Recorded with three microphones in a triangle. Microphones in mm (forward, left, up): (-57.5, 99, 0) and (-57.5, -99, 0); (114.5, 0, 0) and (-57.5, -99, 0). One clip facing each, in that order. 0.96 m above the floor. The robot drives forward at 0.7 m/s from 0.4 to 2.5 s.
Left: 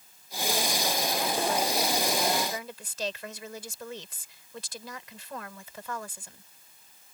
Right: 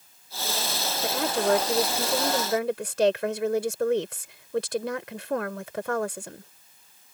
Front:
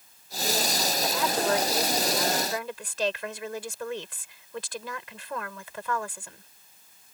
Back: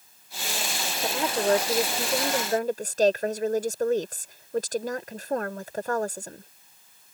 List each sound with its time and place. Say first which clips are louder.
1.0 s a woman speaking: right 8 dB, back 4 dB; 90° right; by 6.5 s 105° right